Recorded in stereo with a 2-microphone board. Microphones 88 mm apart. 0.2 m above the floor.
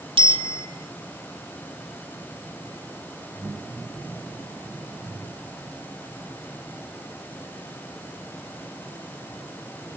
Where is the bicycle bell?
75° right (ahead or behind), 5.5 m.